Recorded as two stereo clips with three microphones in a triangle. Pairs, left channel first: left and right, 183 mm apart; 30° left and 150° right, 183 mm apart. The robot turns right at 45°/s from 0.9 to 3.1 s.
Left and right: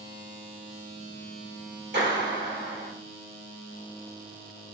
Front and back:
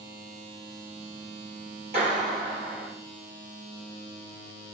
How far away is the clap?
About 4 m.